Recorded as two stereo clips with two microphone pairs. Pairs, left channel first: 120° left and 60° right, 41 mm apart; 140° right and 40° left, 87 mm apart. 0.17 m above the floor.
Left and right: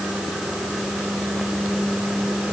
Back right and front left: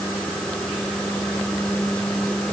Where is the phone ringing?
I don't hear a phone ringing.